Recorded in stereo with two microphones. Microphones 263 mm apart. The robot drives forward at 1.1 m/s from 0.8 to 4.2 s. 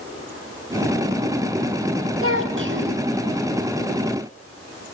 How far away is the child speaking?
About 2.5 m.